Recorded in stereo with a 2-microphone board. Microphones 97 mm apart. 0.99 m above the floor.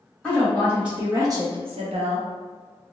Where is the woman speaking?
5° left (ahead or behind), 1.6 m; by 2.3 s 75° right (ahead or behind), 1.0 m.